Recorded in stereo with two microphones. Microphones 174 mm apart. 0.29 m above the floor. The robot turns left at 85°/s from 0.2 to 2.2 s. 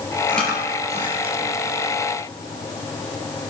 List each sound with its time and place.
0.3 s chewing: 15° left (ahead or behind), 3.5 m; by 1.5 s 80° right, 3.5 m